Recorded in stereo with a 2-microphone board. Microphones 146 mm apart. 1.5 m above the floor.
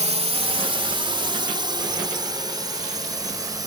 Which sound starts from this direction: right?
A drone, at 0.0 s.